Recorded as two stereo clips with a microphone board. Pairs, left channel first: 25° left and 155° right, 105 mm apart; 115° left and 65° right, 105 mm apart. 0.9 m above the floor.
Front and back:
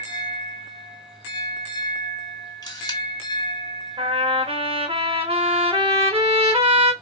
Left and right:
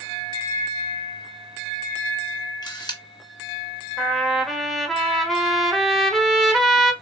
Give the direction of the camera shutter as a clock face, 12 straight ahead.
10 o'clock.